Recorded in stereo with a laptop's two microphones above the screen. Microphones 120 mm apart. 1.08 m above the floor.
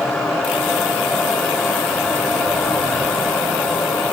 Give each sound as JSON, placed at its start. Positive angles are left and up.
{"t": 0.0, "sound": "a fan", "side_deg": 5, "distance_m": 8.0}